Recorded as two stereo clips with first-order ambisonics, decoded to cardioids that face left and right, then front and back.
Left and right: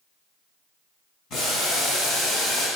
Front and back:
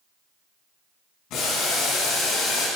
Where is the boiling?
40° left, 6 m.